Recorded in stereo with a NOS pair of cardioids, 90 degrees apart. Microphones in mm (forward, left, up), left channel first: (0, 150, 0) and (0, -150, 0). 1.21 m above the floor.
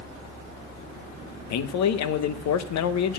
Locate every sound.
1.5 s a man speaking: 65° left, 0.9 m